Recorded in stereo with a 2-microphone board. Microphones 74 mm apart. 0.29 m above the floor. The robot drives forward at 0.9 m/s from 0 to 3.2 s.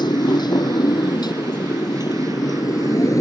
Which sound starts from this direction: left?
A motorcycle, at 0.0 s.